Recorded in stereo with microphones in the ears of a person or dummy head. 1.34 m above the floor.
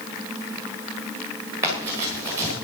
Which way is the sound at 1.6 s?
15° right (ahead or behind).